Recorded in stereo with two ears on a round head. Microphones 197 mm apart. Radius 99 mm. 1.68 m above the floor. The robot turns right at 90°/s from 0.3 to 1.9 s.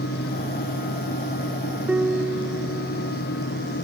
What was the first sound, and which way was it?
A piano, 5° right (ahead or behind).